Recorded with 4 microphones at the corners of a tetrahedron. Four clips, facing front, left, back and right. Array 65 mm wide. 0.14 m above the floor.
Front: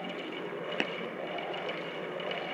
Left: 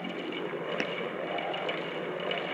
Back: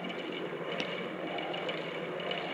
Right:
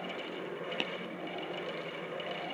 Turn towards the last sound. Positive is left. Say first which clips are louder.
# left 3 dB, front 7 dB
turn(degrees=25)